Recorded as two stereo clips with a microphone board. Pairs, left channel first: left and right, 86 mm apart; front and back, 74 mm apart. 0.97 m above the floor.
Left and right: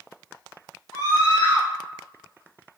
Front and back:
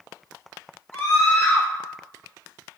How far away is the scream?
About 2 m.